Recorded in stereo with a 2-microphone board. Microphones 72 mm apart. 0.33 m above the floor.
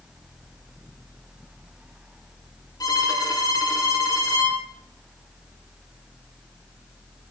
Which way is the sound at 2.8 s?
55° left (ahead or behind).